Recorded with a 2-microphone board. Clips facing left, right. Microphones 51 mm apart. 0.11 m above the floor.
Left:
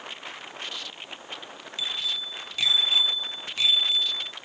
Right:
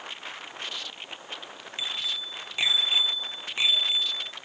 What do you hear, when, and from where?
1.8 s a bicycle bell: 25° right (ahead or behind)